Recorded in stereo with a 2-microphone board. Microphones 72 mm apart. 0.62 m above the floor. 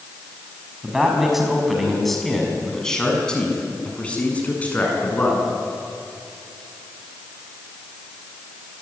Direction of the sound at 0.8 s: 10° right (ahead or behind).